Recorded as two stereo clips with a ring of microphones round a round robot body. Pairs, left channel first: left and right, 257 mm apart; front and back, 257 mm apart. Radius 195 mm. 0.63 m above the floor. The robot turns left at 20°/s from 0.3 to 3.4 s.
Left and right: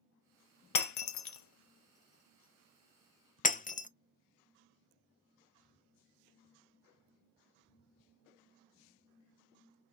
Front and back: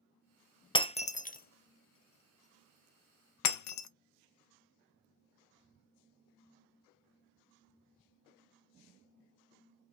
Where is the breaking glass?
75° left, 0.6 m; by 3.9 s 25° left, 0.6 m.